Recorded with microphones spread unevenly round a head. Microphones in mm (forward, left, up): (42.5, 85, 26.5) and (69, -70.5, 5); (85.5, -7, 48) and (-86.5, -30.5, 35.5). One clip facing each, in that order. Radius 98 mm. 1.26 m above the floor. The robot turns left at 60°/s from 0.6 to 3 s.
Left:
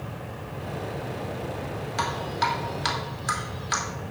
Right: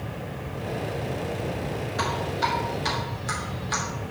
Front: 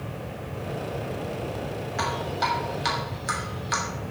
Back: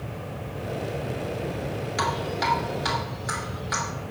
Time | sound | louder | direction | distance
2.0 | dripping | even, back 1 dB | 135° left | 3 m